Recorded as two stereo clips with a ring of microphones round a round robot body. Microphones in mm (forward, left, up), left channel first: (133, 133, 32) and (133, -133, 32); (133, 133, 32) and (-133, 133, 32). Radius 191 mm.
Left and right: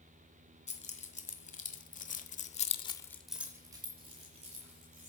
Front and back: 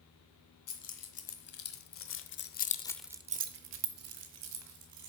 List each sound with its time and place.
0.7 s keys jangling: 25° left, 2 m; by 5.1 s 160° right, 1.9 m